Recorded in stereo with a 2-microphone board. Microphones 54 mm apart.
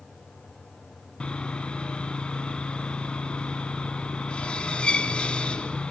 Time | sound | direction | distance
1.2 | sawing | 20° left (ahead or behind) | 1.0 m